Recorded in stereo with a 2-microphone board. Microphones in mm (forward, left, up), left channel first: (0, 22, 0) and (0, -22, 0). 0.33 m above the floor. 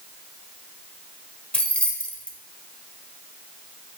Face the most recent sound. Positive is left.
turn(degrees=30)  # may be behind; listen again after turning